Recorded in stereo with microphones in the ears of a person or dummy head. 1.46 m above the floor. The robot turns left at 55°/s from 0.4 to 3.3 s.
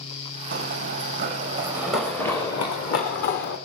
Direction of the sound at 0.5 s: 70° right (ahead or behind).